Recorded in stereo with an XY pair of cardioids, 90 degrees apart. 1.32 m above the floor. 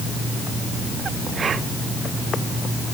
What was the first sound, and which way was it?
Only background noise.